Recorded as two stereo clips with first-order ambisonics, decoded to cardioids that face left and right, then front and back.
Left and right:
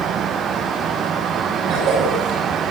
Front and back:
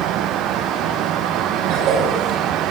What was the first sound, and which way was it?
A cough, 140° right.